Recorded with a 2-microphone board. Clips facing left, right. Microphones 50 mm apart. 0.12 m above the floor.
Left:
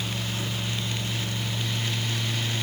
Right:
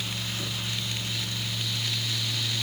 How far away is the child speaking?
I don't hear a child speaking.